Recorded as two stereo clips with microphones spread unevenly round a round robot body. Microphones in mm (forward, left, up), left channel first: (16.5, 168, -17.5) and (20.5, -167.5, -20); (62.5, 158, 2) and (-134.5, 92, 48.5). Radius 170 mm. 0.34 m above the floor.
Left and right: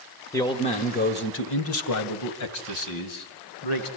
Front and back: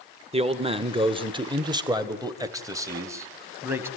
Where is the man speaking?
155° left, 1.5 m; by 3.9 s 115° left, 3.5 m.